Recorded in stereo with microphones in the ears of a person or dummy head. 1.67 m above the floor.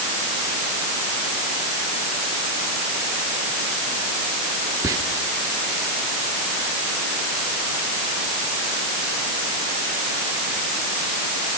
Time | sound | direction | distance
4.8 | whispering | 15° right (ahead or behind) | 1.1 m